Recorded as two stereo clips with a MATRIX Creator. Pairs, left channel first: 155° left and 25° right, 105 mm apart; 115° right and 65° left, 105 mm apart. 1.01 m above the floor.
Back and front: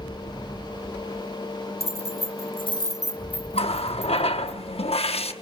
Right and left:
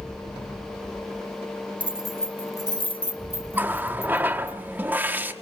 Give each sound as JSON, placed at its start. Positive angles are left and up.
{"t": 1.8, "sound": "keys jangling", "azimuth_deg": 145, "distance_m": 1.3}
{"t": 3.5, "sound": "a running tap", "azimuth_deg": 140, "distance_m": 1.2}